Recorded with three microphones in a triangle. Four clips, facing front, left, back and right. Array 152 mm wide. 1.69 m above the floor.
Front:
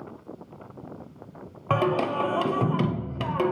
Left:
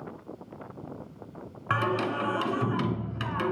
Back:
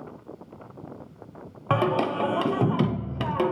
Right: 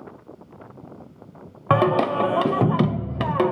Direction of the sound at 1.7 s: 95° right.